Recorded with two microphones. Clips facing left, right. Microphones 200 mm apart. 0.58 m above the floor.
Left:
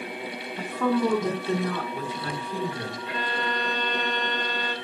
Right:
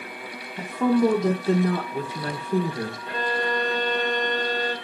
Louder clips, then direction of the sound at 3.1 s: Right 4 dB; 45° right (ahead or behind).